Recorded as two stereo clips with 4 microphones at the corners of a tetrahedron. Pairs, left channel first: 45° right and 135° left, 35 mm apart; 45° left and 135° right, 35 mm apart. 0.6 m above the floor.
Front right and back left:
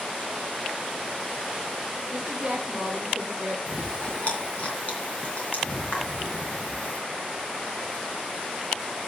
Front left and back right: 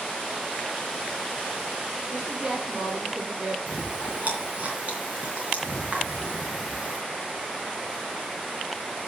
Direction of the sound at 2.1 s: 155° right.